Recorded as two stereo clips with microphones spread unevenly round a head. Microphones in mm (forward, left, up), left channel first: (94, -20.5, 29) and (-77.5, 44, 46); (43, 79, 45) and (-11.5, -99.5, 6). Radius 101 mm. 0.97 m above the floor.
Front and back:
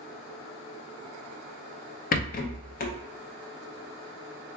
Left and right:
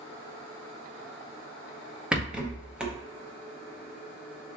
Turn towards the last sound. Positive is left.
turn(degrees=-35)